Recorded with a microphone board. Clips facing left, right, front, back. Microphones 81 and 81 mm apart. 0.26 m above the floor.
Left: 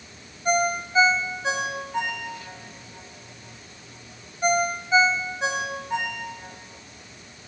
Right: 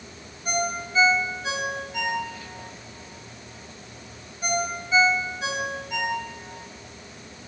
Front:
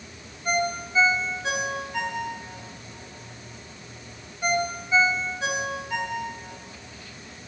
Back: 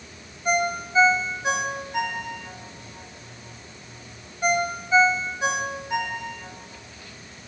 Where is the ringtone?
120° left, 1.1 m.